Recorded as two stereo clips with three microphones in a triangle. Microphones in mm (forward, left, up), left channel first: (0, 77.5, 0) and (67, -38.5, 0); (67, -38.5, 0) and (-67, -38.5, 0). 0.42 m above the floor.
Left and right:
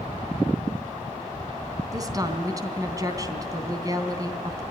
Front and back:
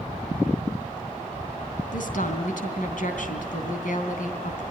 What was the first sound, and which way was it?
A woman speaking, 5° left.